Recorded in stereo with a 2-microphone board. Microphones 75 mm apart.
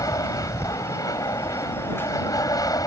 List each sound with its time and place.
0.0 s an aircraft: 60° left (ahead or behind)